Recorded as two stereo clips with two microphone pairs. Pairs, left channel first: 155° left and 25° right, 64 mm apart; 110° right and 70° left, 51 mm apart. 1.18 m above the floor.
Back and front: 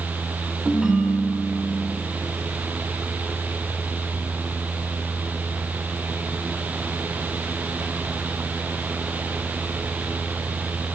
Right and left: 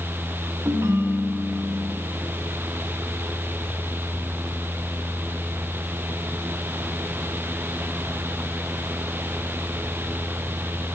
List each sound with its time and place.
0.7 s a ringtone: 55° left, 2.5 m